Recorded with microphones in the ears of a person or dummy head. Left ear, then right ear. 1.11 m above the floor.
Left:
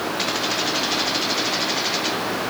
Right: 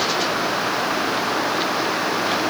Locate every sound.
Only background noise.